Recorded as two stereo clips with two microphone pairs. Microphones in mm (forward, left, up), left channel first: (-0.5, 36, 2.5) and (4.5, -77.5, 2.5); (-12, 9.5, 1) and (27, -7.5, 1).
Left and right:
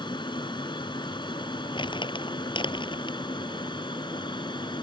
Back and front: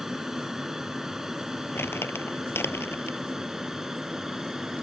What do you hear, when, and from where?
0.0 s an aircraft: 55° left
1.8 s crumpling: 135° left